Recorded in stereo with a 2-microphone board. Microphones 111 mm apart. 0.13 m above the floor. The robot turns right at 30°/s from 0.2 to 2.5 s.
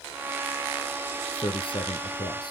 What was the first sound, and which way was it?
A man speaking, 90° left.